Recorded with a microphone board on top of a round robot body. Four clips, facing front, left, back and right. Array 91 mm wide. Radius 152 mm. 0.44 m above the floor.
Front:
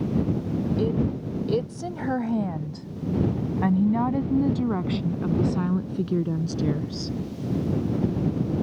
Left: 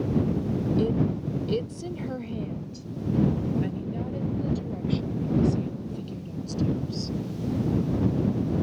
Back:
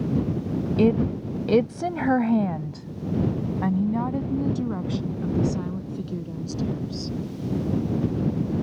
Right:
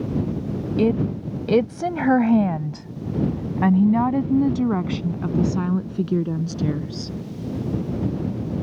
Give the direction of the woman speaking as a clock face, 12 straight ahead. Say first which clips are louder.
Right 9 dB, back 9 dB; 5 o'clock.